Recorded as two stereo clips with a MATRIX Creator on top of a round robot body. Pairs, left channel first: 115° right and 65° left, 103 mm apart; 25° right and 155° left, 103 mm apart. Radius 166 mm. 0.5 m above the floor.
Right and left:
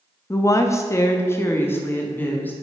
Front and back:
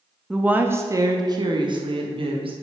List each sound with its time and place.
0.3 s a woman speaking: 125° right, 0.8 m; by 2.5 s 175° left, 1.5 m